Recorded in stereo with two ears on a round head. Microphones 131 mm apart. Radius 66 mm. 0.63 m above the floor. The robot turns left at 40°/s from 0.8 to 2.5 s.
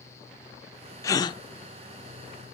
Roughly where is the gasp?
Left.